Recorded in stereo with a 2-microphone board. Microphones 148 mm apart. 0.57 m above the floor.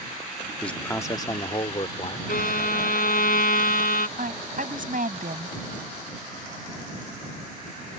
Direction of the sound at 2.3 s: 85° left.